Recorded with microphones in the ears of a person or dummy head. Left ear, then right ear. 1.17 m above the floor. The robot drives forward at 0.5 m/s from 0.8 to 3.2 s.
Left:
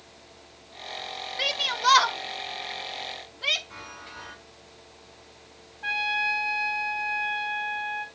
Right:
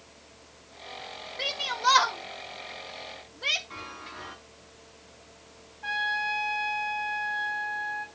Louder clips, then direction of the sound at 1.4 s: Left 3 dB; 25° left (ahead or behind).